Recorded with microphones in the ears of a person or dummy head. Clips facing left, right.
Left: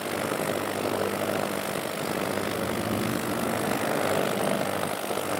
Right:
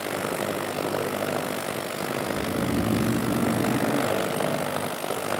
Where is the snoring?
25° right (ahead or behind), 0.8 m.